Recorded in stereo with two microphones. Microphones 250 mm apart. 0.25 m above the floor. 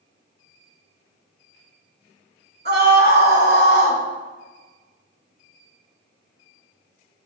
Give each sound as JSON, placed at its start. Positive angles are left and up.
{"t": 2.6, "sound": "a scream", "side_deg": -45, "distance_m": 2.5}